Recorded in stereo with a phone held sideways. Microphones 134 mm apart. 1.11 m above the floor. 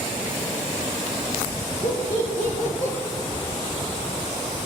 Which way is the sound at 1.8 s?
55° left (ahead or behind).